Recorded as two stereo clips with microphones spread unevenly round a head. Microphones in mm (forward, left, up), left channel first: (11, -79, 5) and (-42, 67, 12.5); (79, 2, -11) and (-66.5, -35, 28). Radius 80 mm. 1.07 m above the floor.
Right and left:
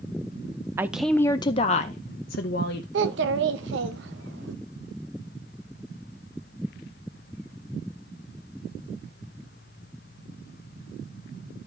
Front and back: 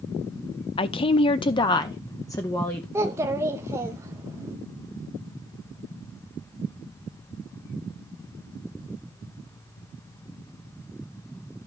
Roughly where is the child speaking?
Behind left.